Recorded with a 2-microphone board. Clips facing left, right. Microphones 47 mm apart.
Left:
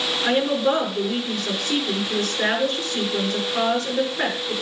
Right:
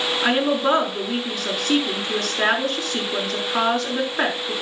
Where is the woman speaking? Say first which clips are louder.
Even; 80° right, 5 m.